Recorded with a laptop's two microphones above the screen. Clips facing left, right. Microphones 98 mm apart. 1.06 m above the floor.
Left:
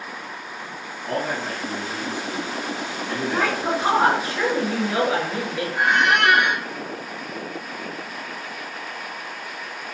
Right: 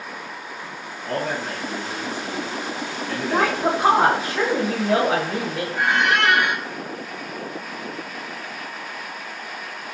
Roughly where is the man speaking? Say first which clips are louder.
Even; centre.